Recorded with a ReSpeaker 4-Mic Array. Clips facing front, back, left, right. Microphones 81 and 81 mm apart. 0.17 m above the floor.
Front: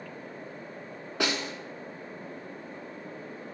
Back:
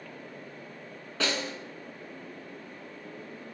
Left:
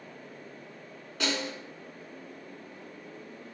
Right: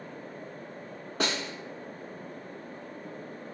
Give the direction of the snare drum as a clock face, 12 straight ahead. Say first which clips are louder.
Front 1 dB, even; 2 o'clock.